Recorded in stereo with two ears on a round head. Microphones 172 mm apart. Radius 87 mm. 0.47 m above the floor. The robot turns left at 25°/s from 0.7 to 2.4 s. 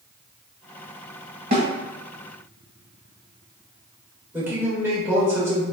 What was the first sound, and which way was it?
A snare drum, 50° right (ahead or behind).